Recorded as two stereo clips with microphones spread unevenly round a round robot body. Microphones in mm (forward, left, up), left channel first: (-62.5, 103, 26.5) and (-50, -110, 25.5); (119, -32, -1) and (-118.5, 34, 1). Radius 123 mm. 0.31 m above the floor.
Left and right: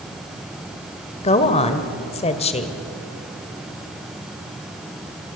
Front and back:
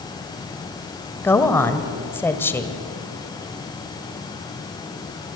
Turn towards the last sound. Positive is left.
turn(degrees=60)